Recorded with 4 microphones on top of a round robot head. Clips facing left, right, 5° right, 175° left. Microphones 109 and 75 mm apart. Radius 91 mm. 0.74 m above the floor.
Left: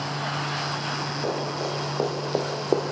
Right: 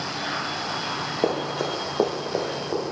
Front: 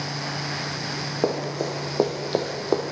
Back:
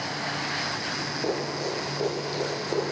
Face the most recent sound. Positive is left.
turn(degrees=50)